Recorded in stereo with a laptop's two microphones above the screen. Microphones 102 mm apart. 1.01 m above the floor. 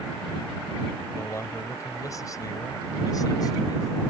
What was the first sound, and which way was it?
A man speaking, 30° left (ahead or behind).